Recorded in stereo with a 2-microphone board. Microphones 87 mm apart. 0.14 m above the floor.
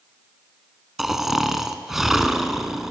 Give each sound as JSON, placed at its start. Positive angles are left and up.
{"t": 1.0, "sound": "snoring", "side_deg": -5, "distance_m": 0.5}